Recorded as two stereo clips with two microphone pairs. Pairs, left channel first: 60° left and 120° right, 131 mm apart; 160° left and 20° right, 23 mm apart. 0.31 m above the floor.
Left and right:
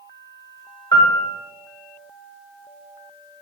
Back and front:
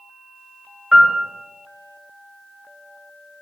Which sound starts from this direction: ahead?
A piano, at 0.9 s.